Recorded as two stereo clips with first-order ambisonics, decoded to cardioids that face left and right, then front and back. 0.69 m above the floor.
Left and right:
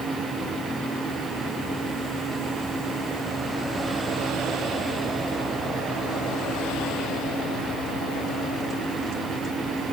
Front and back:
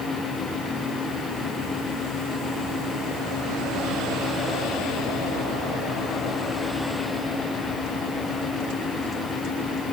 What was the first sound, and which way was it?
Only background noise.